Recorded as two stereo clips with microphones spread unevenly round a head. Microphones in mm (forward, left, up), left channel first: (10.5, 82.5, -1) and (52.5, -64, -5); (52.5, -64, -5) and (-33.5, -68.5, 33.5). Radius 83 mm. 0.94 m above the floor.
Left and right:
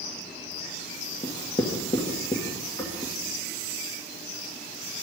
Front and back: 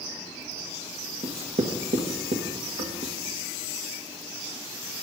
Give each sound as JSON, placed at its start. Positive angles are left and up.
{"t": 1.2, "sound": "writing", "azimuth_deg": 175, "distance_m": 1.5}